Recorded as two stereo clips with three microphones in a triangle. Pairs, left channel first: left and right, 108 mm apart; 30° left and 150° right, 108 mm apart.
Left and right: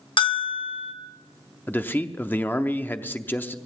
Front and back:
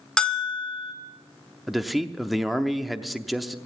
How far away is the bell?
About 0.9 m.